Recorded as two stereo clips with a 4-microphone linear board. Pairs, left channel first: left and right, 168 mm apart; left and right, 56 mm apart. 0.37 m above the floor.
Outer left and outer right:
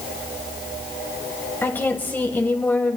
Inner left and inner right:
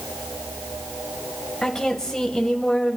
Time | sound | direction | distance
1.6 | a woman speaking | 10° left (ahead or behind) | 2.0 m